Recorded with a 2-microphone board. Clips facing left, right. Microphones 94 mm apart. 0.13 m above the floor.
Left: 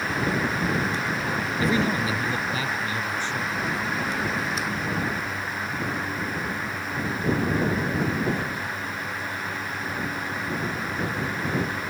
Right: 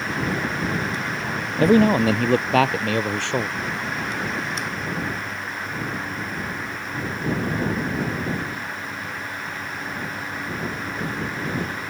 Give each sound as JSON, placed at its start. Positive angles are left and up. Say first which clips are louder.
{"t": 1.6, "sound": "a man speaking", "louder": "right 10 dB", "side_deg": -55}